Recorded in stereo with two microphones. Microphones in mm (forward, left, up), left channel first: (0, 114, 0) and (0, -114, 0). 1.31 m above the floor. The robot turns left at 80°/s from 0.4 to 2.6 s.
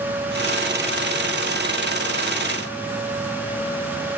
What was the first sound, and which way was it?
Only background noise.